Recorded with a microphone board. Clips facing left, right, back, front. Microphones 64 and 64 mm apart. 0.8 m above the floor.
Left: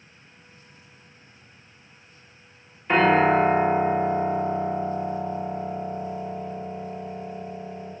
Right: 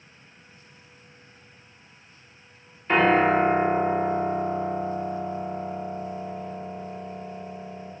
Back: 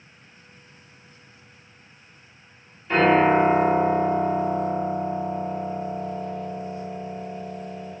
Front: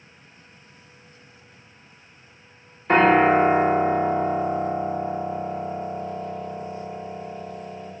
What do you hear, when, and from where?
2.9 s a piano: 5° left, 1.2 m